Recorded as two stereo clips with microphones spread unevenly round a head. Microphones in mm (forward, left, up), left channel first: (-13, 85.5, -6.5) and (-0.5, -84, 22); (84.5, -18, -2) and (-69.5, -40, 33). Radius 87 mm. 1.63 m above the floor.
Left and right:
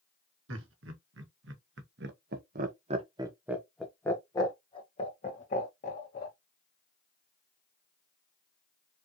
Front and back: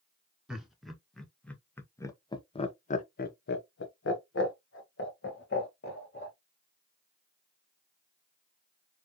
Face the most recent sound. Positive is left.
turn(degrees=50)